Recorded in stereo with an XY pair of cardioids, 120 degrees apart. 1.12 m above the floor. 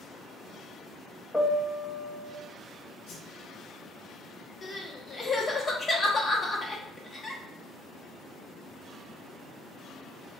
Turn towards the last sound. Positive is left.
turn(degrees=25)